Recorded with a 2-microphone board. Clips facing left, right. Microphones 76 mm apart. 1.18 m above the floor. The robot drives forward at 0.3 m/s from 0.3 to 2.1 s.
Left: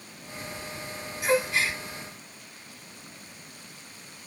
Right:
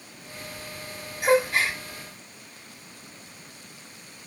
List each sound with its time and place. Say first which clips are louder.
1.2 s a gasp: right 4 dB; 55° right (ahead or behind), 2.5 m; by 1.8 s 50° right (ahead or behind), 2.5 m